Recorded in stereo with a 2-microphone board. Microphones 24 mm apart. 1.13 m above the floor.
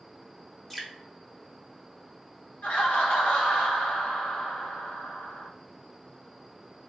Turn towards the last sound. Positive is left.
turn(degrees=75)  # may be behind; listen again after turning